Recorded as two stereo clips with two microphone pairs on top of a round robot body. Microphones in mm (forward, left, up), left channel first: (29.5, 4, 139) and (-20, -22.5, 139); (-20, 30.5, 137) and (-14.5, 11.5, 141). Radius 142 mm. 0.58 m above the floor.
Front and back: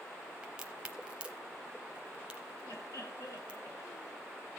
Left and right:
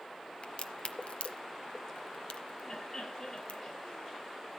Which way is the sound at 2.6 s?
50° left.